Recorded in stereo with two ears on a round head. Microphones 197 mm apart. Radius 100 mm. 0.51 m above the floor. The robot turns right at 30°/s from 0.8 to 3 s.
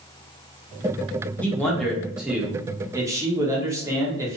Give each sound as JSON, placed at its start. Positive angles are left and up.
{"t": 1.4, "sound": "a man speaking", "side_deg": 5, "distance_m": 1.1}